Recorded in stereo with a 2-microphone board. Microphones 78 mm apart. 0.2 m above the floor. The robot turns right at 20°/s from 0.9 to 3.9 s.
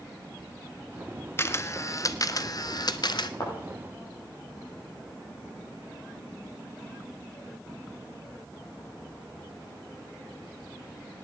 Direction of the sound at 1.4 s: 30° left.